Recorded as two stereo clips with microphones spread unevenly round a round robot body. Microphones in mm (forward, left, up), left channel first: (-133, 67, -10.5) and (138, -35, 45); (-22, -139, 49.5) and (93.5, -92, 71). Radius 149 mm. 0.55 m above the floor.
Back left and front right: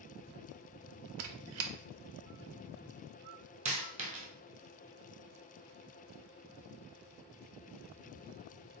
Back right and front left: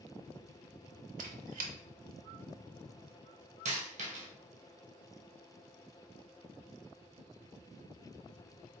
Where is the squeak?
15° left, 0.5 m.